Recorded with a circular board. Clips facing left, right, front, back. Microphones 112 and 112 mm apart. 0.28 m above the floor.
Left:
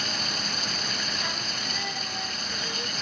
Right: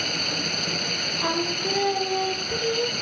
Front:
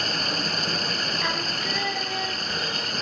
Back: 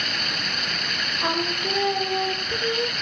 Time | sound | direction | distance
0.0 | running water | 55° right | ?
1.2 | singing | 120° right | ?